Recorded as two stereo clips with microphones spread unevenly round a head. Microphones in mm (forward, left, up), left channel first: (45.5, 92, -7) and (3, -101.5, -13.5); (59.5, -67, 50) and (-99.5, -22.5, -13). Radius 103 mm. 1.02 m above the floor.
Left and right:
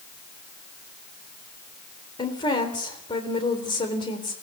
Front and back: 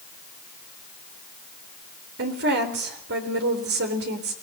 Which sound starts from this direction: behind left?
A woman speaking, at 2.2 s.